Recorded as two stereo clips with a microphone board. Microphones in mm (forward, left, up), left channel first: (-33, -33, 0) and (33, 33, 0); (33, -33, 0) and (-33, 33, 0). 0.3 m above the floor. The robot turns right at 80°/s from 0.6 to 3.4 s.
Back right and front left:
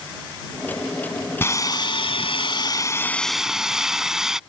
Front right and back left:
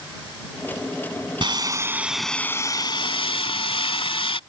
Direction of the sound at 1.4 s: 160° left.